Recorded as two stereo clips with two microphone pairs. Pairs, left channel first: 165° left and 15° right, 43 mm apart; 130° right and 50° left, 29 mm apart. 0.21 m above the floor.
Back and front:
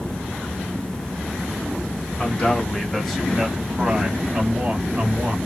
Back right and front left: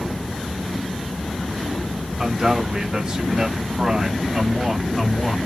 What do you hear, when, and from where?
2.2 s a man speaking: 105° left, 1.4 m; by 5.4 s 40° right, 1.4 m